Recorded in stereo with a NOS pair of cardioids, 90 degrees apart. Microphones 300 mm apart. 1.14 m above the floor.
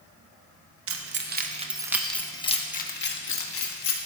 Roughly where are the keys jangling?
Ahead right.